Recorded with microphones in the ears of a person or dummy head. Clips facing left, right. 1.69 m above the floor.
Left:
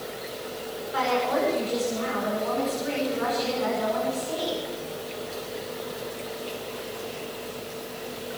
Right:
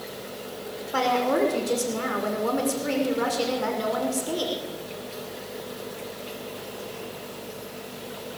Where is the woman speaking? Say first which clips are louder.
Right 2 dB; 60° right (ahead or behind), 6 m.